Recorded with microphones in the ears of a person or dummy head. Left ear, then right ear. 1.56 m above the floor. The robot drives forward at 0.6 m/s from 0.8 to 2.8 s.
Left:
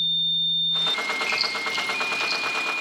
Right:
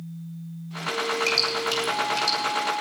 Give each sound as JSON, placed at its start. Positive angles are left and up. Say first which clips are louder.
{"t": 1.3, "sound": "dripping", "louder": "right 1 dB", "side_deg": -55, "distance_m": 5.5}